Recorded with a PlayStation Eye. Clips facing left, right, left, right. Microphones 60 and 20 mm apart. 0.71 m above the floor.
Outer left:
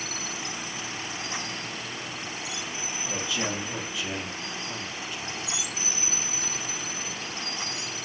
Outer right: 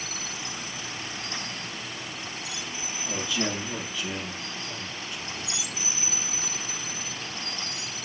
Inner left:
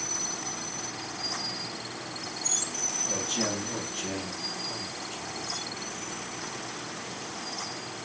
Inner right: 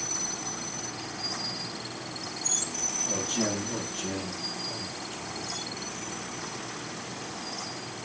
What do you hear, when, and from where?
3.0 s a man speaking: centre (ahead or behind), 3 m; by 5.5 s 25° left (ahead or behind), 4.5 m